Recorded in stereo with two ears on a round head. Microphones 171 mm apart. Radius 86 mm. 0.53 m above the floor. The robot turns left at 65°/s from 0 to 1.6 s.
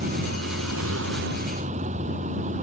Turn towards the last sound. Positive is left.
turn(degrees=-140)